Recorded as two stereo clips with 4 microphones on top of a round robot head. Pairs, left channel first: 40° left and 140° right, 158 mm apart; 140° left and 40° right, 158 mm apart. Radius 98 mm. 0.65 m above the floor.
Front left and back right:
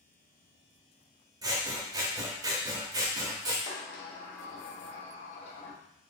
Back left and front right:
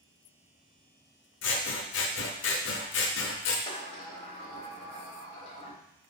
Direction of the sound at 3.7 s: 85° left.